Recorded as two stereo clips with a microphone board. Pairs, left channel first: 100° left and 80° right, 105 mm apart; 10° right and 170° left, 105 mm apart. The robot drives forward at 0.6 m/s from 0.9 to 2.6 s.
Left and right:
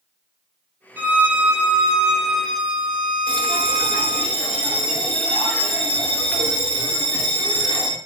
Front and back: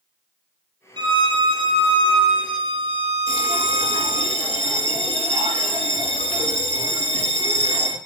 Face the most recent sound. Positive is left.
turn(degrees=180)